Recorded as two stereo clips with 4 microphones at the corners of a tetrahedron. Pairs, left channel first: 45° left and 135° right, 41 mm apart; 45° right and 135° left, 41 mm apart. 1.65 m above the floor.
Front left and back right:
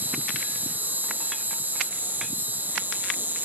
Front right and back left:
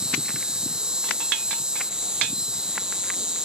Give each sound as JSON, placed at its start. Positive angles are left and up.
{"t": 0.0, "sound": "an insect", "azimuth_deg": -160}